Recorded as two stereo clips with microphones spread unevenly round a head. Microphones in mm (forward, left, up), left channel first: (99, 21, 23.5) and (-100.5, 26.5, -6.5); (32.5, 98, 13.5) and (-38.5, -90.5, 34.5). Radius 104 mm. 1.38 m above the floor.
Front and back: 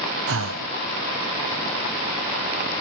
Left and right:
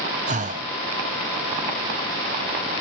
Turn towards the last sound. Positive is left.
turn(degrees=-165)